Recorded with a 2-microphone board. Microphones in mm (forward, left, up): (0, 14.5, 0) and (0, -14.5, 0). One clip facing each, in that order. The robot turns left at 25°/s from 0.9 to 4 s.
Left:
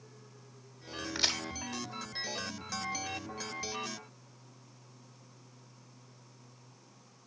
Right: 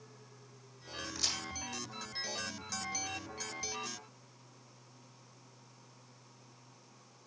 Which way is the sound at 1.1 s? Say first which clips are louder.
Left 6 dB; 40° left (ahead or behind).